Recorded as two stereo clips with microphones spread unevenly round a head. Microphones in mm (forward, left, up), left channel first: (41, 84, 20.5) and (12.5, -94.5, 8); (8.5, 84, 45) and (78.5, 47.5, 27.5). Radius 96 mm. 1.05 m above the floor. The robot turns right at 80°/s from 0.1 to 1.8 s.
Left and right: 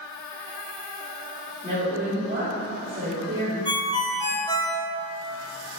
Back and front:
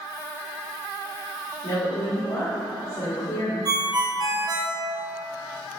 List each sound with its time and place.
1.6 s a woman speaking: 175° right, 2.0 m; by 3.5 s 160° right, 2.0 m
3.6 s a ringtone: 15° left, 1.0 m